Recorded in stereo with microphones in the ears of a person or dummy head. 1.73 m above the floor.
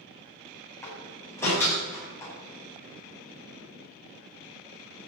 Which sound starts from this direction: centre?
A door slam, at 0.8 s.